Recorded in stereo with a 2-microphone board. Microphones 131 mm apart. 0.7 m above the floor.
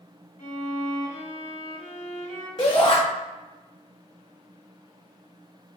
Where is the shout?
40° left (ahead or behind), 0.9 m.